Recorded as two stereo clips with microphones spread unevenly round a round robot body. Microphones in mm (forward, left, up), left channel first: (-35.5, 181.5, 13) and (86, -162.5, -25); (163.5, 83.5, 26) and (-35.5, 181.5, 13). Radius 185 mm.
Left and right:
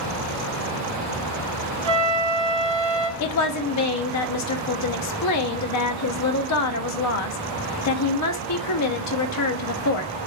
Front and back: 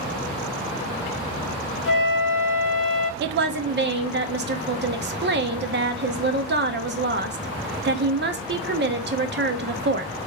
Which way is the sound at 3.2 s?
150° left.